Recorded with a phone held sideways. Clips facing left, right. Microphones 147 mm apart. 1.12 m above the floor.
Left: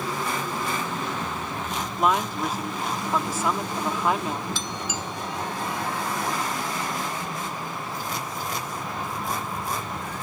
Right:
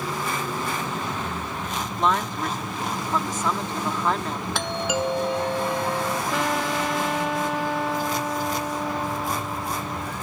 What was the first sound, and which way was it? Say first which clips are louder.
A woman speaking: left 1 dB; 10° left (ahead or behind).